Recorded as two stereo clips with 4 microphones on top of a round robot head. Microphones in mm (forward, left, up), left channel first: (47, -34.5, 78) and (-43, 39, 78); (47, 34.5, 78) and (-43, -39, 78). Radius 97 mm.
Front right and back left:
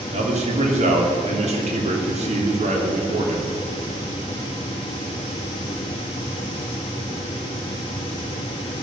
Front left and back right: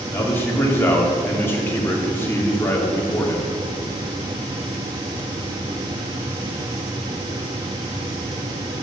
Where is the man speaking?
110° left, 2.5 m.